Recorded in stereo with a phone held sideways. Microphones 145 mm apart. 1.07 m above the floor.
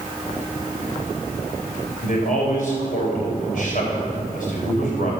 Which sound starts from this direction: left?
A man speaking, at 2.0 s.